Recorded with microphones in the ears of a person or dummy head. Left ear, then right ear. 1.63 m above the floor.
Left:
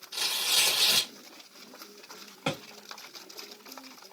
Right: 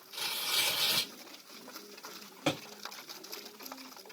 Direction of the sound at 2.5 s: 10° left (ahead or behind).